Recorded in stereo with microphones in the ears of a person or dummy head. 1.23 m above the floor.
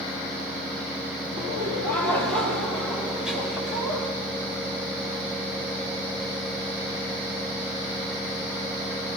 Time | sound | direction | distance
1.4 | laughter | 15° left (ahead or behind) | 3.5 m